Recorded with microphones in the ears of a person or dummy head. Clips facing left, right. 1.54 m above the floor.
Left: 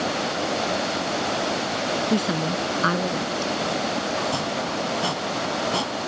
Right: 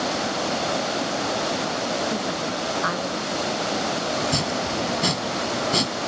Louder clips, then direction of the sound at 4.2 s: Right 1 dB; 30° right (ahead or behind).